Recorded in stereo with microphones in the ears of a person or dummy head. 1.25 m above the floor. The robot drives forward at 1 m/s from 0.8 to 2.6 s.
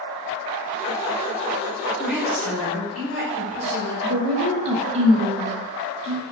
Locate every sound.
2.0 s a woman speaking: 10° right (ahead or behind), 2 m; by 3.9 s 5° right (ahead or behind), 2.5 m
4.0 s a woman speaking: 35° right (ahead or behind), 1.0 m